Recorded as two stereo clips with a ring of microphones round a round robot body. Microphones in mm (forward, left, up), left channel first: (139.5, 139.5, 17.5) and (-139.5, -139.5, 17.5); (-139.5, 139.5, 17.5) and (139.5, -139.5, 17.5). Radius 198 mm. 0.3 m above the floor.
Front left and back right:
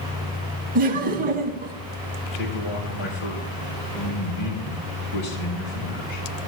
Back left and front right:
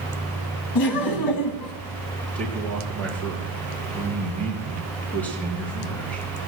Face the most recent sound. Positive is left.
turn(degrees=50)